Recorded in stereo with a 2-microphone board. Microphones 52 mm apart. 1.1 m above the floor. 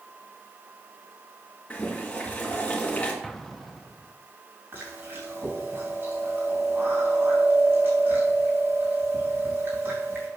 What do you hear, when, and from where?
1.7 s boiling: 25° left (ahead or behind), 2.5 m
3.2 s an explosion: 5° left (ahead or behind), 0.7 m
4.7 s chewing: 40° right (ahead or behind), 4 m